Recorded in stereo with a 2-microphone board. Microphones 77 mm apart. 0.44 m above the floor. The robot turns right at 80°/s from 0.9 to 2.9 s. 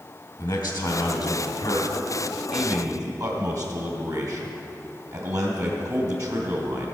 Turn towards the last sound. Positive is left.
turn(degrees=-130)